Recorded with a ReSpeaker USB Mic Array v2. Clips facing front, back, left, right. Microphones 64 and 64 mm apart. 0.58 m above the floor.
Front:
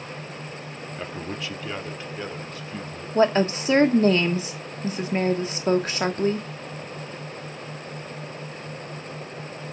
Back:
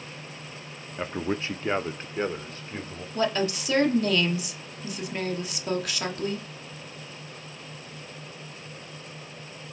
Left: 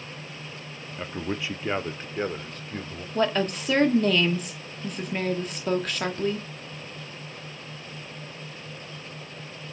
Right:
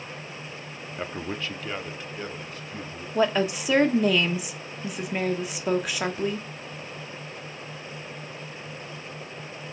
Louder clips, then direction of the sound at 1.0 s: Back 5 dB, left 1 dB; 135° right.